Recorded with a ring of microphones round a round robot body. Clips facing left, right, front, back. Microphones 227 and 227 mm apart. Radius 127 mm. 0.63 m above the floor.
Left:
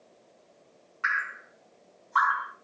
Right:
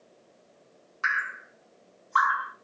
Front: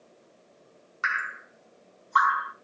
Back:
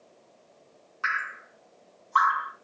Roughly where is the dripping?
Ahead right.